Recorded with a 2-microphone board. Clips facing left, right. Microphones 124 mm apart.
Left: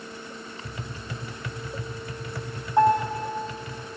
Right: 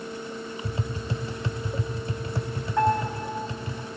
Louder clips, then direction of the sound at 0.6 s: Right 7 dB; 30° right (ahead or behind).